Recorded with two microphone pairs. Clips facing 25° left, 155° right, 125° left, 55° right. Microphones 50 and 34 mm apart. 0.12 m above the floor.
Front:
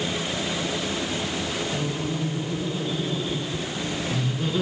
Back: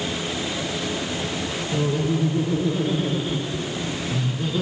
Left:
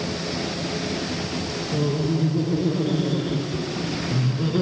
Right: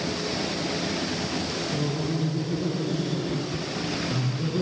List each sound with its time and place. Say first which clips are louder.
1.7 s laughter: back 5 dB, left 7 dB; 175° left, 3 m; by 4.6 s 100° left, 1.9 m